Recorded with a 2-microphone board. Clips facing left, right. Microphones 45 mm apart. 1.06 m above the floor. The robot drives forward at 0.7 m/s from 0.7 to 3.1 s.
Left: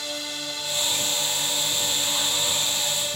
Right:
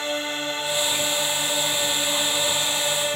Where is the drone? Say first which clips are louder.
Right 6 dB; 30° right (ahead or behind); by 3.2 s 35° right (ahead or behind).